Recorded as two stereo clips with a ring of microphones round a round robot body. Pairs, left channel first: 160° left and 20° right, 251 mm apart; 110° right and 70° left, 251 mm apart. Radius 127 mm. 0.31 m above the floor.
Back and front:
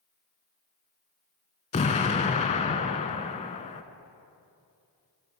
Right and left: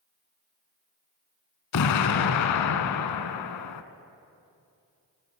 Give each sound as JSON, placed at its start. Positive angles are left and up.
{"t": 1.7, "sound": "an explosion", "azimuth_deg": -135, "distance_m": 0.5}